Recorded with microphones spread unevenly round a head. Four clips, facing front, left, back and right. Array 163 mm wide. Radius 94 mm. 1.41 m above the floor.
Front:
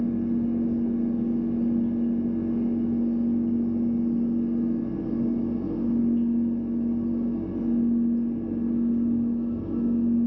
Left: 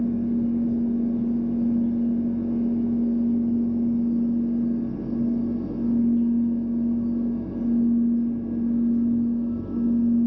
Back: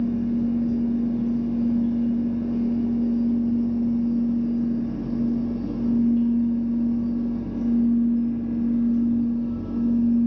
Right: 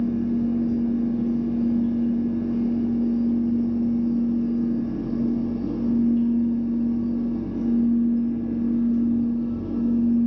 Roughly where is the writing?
No writing in this recording.